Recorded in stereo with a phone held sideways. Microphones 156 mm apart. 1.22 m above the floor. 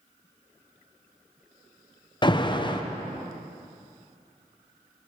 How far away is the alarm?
About 0.6 m.